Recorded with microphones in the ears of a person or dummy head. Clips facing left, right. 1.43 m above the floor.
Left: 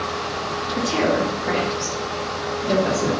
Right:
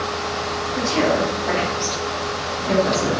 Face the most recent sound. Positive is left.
turn(degrees=45)  # may be behind; listen again after turning